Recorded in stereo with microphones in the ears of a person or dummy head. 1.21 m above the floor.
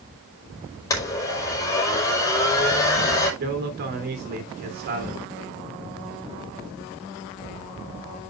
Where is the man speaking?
55° right (ahead or behind), 3.5 m.